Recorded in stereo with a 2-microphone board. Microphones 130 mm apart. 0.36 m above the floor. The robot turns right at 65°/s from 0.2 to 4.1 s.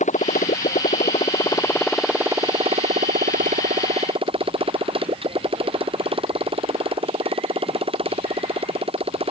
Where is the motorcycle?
65° left (ahead or behind); by 9.3 s 45° right (ahead or behind).